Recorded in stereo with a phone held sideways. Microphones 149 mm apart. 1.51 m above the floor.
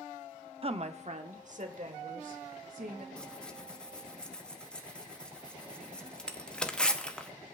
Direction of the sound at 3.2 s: 5° left (ahead or behind).